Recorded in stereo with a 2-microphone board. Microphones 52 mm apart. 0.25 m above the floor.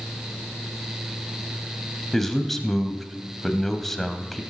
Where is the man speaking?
5° left (ahead or behind), 1.1 m.